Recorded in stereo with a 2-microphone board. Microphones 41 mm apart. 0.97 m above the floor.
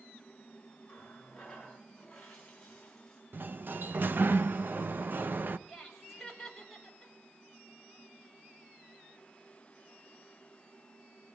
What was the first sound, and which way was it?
A running tap, 15° left (ahead or behind).